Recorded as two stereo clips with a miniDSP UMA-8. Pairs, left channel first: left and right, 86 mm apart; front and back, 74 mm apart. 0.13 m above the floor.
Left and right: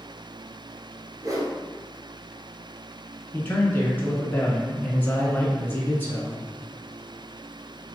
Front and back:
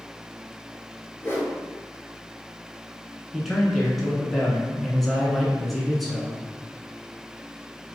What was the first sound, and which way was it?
A whoosh, 55° right.